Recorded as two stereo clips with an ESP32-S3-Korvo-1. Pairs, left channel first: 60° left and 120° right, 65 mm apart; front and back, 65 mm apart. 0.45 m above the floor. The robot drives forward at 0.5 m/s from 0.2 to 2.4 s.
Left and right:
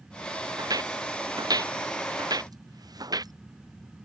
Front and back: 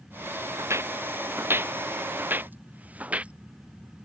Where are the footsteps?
135° right; by 3.3 s 110° right.